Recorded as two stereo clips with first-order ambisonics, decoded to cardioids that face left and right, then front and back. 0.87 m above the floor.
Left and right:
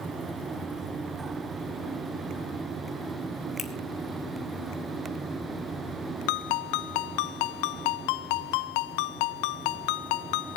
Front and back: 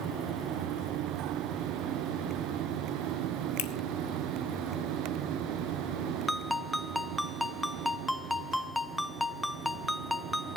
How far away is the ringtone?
About 0.5 m.